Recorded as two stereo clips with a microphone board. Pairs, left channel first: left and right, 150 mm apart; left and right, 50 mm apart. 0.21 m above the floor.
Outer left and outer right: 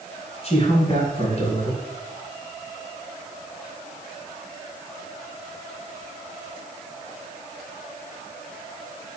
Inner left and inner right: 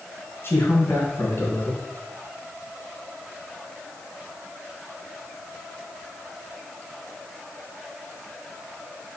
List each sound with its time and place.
0.4 s a man speaking: 45° left (ahead or behind), 2.5 m